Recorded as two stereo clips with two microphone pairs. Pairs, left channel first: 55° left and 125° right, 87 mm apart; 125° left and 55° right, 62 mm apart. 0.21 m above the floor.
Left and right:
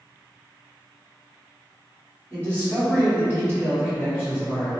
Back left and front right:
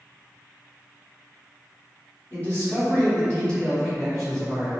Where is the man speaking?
105° left, 1.8 m; by 4.7 s 20° left, 1.6 m.